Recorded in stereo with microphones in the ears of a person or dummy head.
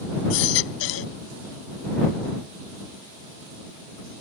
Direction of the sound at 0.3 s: 75° left (ahead or behind).